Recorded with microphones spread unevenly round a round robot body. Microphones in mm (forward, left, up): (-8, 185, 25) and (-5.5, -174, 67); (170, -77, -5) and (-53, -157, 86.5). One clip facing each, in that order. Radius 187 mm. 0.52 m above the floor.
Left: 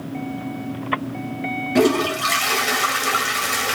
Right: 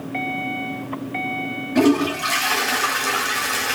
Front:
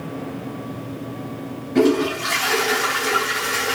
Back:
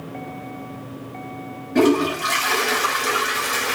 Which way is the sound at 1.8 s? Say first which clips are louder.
Right 1 dB, even; 100° left.